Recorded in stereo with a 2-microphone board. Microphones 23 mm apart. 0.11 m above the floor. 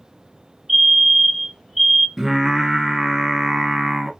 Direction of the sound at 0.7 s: 15° right (ahead or behind).